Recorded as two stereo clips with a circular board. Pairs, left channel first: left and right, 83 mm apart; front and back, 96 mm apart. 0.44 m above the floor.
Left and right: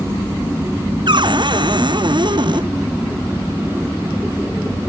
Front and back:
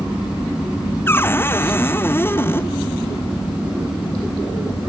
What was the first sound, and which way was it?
A cupboard door, 65° right.